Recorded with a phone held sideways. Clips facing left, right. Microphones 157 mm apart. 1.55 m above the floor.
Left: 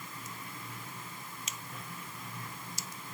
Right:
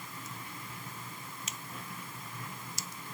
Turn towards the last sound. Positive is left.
No sound to turn to.